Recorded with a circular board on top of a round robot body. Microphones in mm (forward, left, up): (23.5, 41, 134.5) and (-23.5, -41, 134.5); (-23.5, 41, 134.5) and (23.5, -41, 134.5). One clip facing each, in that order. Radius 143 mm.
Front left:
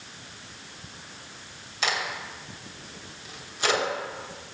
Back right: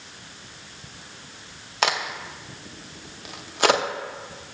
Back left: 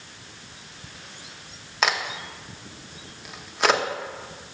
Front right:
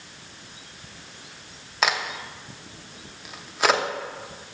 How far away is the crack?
About 0.7 m.